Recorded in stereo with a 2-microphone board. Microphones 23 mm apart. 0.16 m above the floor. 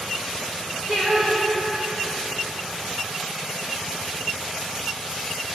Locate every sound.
0.9 s singing: 55° right (ahead or behind), 2.5 m